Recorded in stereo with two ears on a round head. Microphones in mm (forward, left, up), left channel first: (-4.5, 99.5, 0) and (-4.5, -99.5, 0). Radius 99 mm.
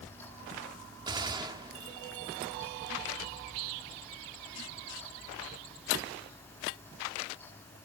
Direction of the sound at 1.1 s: 20° right (ahead or behind).